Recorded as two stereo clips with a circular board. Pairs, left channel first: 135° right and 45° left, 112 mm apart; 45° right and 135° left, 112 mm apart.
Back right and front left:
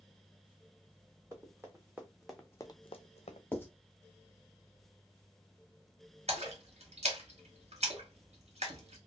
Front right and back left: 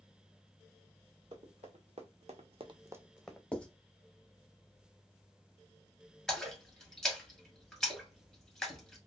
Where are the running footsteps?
105° left, 1.4 m; by 3.4 s 130° right, 0.8 m.